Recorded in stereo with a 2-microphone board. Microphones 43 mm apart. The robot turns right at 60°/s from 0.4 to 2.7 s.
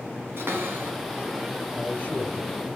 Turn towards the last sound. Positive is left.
turn(degrees=80)